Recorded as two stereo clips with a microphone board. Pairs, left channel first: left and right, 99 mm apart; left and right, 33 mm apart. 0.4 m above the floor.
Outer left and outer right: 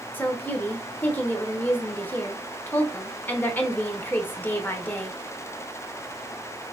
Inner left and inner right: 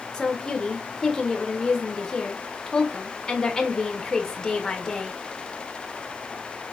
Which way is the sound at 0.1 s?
20° left (ahead or behind).